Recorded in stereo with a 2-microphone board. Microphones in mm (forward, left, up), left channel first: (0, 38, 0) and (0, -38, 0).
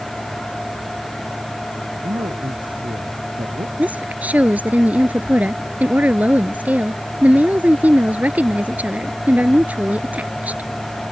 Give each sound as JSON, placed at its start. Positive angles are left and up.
{"t": 2.0, "sound": "a man speaking", "side_deg": -80}
{"t": 3.8, "sound": "a woman speaking", "side_deg": -20}